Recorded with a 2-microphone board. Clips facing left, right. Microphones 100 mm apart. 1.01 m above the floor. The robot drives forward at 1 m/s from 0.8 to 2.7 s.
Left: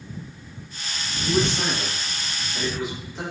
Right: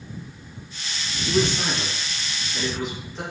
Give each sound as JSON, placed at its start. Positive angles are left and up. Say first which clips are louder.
{"t": 1.3, "sound": "a man speaking", "louder": "even", "side_deg": 25, "distance_m": 0.7}